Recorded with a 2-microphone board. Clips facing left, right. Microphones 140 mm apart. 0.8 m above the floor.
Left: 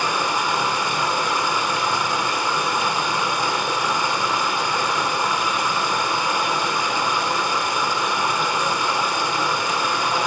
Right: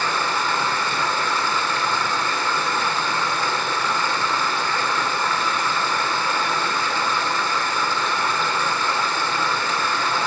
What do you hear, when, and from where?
0.0 s running water: 15° left (ahead or behind), 2 m